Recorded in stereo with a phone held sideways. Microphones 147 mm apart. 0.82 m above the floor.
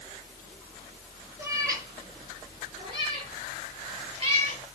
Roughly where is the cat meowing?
Centre.